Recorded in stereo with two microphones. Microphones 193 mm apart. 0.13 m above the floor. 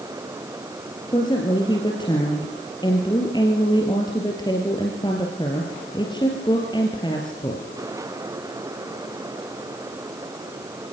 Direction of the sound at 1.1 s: 20° left (ahead or behind).